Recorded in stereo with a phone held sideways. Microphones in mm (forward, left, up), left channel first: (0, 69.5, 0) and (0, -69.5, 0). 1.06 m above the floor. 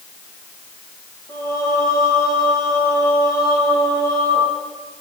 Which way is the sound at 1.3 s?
25° left (ahead or behind).